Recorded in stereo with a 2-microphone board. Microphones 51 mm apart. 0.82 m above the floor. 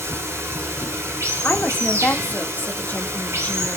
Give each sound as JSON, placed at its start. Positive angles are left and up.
{"t": 0.0, "sound": "running water", "side_deg": -65, "distance_m": 1.1}
{"t": 1.4, "sound": "a woman speaking", "side_deg": 35, "distance_m": 0.7}